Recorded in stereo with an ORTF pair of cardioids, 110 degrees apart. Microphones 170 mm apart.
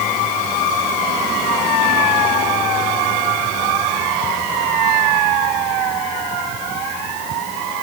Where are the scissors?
No scissors in this recording.